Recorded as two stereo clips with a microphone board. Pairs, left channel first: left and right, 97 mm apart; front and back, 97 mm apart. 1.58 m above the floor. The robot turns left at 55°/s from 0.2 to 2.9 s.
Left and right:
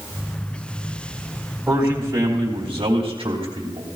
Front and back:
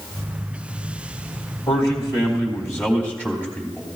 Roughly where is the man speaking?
Ahead.